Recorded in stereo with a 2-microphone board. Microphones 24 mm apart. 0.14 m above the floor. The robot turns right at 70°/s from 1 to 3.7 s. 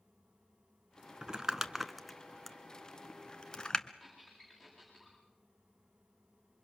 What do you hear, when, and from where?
1.2 s crumpling: 30° right (ahead or behind), 0.9 m; by 3.9 s 30° left (ahead or behind), 0.9 m
4.0 s a squeak: 10° left (ahead or behind), 8.5 m